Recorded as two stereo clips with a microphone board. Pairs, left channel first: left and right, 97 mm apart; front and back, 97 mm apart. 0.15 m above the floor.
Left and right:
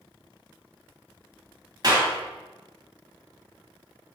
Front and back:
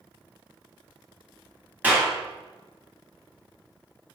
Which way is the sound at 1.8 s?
115° right.